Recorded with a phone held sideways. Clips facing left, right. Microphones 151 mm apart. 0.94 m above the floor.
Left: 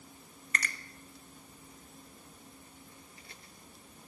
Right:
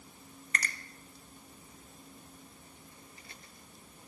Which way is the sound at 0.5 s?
35° right (ahead or behind).